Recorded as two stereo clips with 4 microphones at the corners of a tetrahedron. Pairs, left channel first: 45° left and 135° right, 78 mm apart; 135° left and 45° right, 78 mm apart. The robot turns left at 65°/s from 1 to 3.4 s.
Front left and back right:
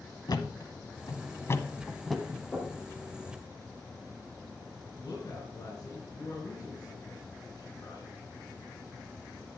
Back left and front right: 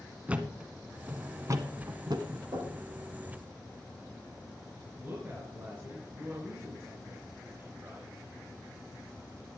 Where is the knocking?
20° right, 5.5 m; by 2.8 s 40° right, 5.5 m.